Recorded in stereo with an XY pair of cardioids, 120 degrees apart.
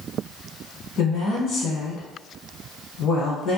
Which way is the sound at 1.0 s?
70° left.